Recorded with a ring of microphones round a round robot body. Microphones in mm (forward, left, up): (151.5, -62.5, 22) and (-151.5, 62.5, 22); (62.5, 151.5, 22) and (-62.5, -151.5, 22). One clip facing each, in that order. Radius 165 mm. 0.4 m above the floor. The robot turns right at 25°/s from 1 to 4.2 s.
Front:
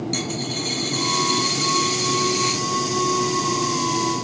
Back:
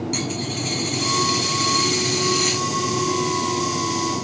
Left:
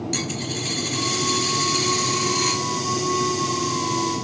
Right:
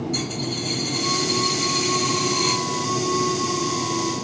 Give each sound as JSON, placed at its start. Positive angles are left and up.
{"t": 0.1, "sound": "a dropped coin", "azimuth_deg": 65, "distance_m": 1.0}